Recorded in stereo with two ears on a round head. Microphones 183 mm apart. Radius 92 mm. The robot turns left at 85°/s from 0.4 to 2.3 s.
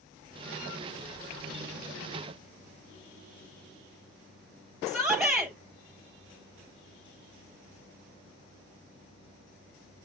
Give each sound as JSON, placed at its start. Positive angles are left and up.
{"t": 4.9, "sound": "a shout", "side_deg": 0, "distance_m": 5.0}